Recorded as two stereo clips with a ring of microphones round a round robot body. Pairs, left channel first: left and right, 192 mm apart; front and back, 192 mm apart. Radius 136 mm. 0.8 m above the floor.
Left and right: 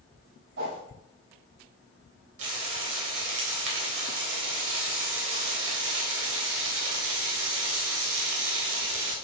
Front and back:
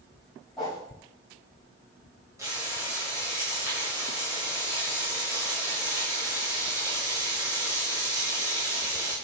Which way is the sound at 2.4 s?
100° right.